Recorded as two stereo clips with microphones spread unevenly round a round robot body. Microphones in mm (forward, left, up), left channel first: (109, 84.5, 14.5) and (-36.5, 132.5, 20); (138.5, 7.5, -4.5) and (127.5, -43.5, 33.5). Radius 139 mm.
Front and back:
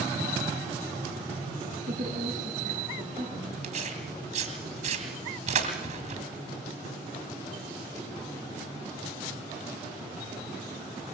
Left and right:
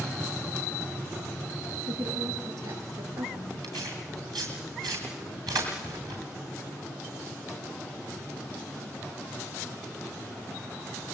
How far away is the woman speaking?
About 4.5 m.